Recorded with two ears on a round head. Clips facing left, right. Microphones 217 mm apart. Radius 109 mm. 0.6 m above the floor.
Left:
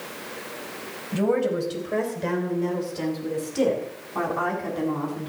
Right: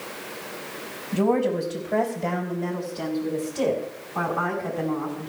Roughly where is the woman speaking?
Left.